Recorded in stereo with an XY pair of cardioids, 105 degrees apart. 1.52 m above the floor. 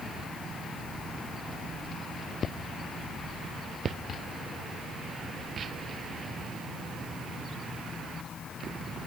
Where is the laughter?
No laughter in this recording.